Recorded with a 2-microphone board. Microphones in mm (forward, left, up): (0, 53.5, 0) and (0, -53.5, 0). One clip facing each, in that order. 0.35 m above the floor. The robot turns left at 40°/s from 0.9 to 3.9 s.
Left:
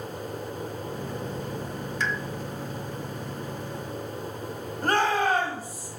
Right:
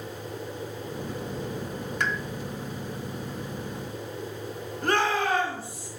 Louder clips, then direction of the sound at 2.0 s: Right 1 dB; 60° right (ahead or behind).